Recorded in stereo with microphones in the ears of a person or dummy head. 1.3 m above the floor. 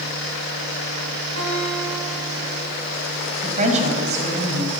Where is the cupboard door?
I don't hear a cupboard door.